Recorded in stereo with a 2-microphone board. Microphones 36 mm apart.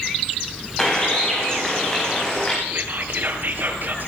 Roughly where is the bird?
Centre.